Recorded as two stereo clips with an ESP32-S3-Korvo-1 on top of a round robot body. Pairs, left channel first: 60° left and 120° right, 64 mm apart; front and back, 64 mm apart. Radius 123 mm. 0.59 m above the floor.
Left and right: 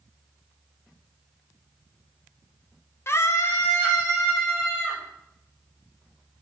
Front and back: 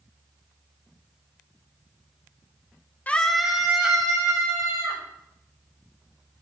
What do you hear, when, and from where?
3.1 s a scream: 50° left, 0.8 m; by 5.0 s 120° left, 3 m